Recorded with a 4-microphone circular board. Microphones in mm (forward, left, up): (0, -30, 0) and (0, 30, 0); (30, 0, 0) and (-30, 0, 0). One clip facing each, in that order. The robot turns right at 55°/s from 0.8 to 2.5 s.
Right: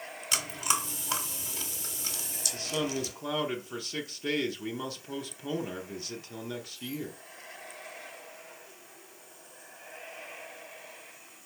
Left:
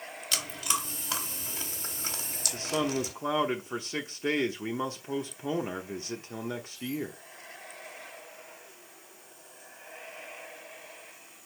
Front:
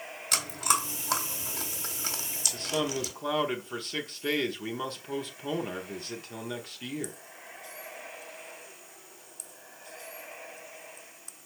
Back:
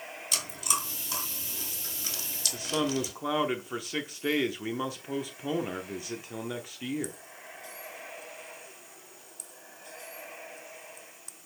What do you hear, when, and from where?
0.3 s chewing: 20° right, 1.6 m; by 3.1 s 75° left, 1.6 m
2.5 s a man speaking: 105° left, 0.7 m